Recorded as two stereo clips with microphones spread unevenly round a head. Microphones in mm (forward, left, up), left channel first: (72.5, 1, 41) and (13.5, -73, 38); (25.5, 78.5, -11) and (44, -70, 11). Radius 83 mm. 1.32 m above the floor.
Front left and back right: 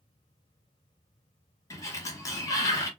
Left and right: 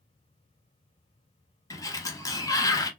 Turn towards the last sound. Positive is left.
turn(degrees=30)